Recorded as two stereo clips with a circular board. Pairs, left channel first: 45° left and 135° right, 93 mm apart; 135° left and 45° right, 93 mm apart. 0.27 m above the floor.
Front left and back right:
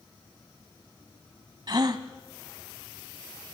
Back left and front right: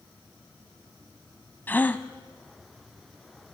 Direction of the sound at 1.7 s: 160° right.